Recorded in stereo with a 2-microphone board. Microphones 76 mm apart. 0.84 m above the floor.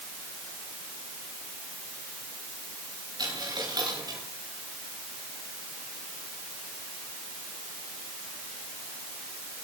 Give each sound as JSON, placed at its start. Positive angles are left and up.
{"t": 3.2, "sound": "a dropped coin", "side_deg": -65, "distance_m": 8.5}